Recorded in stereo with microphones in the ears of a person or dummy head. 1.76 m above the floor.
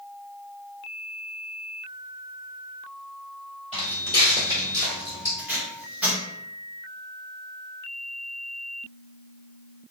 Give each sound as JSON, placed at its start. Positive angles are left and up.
{"t": 3.7, "sound": "footsteps", "side_deg": -5, "distance_m": 1.8}
{"t": 5.4, "sound": "tape being pulled", "side_deg": -5, "distance_m": 1.0}